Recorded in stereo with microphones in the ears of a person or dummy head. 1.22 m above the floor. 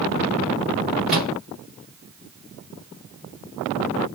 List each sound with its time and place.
1.1 s a microwave: 5° right (ahead or behind), 1.7 m